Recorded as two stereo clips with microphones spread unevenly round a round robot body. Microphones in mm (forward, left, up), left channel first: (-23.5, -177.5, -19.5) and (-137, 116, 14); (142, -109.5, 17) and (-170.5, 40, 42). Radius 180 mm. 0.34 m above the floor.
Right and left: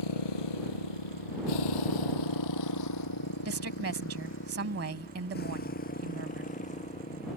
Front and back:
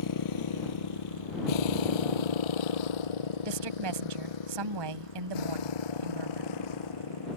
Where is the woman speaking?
155° left.